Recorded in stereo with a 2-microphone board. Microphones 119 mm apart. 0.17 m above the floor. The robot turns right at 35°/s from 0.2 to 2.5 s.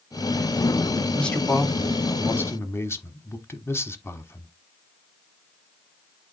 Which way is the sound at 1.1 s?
5° left (ahead or behind).